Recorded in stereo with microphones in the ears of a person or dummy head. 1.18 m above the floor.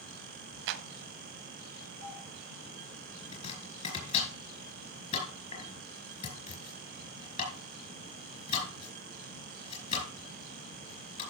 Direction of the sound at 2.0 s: 40° left (ahead or behind).